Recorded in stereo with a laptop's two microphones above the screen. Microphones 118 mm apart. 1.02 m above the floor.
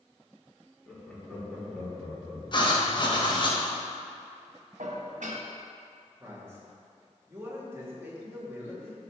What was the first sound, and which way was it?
Laughter, 10° left (ahead or behind).